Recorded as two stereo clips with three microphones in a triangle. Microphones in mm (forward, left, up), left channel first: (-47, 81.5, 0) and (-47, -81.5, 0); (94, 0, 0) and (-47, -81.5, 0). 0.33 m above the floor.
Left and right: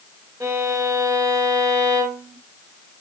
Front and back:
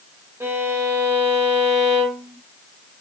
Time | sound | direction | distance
0.4 | a violin | 105° right | 1.3 m